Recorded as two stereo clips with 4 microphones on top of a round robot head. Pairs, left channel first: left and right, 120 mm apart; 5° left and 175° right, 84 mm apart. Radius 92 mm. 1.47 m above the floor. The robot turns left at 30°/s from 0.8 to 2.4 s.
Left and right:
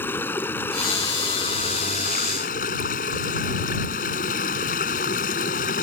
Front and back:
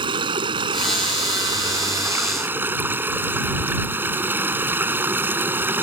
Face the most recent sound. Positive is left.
turn(degrees=120)